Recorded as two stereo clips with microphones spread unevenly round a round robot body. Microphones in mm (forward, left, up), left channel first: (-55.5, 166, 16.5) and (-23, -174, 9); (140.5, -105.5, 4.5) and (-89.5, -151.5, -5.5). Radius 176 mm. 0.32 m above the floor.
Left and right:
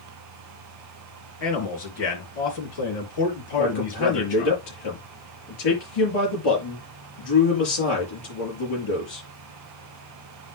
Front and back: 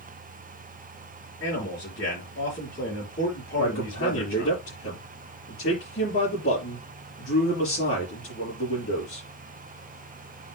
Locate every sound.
1.4 s a man speaking: 75° left, 4.5 m
3.6 s a man speaking: 70° left, 5.5 m